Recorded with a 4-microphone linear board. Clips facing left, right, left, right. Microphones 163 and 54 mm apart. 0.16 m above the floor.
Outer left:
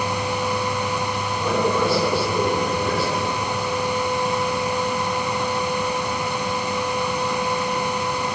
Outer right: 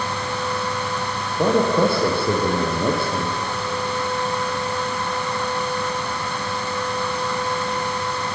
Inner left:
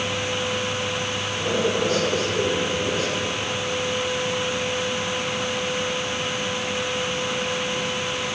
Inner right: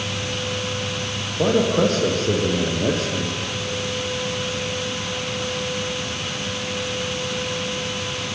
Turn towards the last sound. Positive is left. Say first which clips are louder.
# outer right 4 dB, inner right 6 dB
turn(degrees=-50)  # may be behind; listen again after turning